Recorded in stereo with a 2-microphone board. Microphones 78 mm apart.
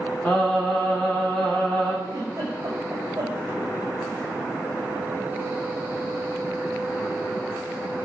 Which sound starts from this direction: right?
A giggle, at 2.0 s.